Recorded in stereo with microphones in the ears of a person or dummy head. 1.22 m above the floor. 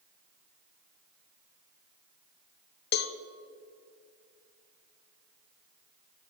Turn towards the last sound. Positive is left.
turn(degrees=45)  # may be behind; listen again after turning